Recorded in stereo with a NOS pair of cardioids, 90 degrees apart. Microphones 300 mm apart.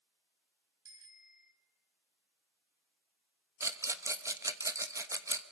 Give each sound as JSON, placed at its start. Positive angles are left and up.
{"t": 0.8, "sound": "a bicycle bell", "azimuth_deg": -40, "distance_m": 5.0}
{"t": 3.6, "sound": "a rattle", "azimuth_deg": -10, "distance_m": 1.1}